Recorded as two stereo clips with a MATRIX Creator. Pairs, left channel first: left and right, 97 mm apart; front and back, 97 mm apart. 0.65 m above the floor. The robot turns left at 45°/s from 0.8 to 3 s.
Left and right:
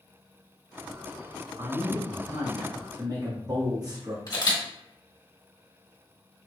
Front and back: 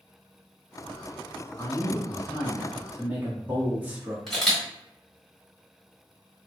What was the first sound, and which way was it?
A man speaking, 50° right.